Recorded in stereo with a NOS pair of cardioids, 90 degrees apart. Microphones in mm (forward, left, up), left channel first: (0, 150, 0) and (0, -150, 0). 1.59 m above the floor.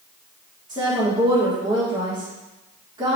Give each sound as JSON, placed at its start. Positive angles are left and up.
{"t": 0.7, "sound": "a woman speaking", "azimuth_deg": -15, "distance_m": 1.8}